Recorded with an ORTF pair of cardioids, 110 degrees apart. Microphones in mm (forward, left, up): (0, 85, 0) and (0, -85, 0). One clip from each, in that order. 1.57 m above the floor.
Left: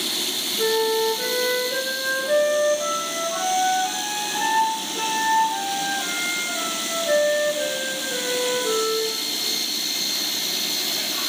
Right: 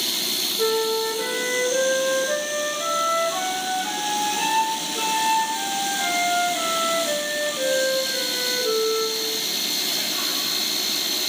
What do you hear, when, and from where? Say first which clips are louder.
0.6 s a flute: left 3 dB; straight ahead, 0.9 m